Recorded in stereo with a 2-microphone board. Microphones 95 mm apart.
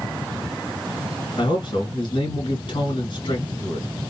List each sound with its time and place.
1.4 s a man speaking: 55° left (ahead or behind), 3 m